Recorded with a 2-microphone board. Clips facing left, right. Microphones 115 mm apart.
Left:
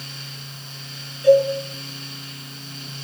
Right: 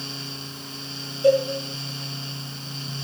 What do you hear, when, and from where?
1.2 s a cowbell: 25° right (ahead or behind), 7 m